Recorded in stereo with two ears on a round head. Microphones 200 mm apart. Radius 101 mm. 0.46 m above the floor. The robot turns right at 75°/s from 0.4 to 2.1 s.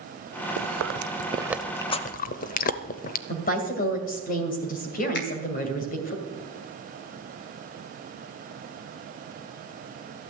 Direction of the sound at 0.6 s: 80° right.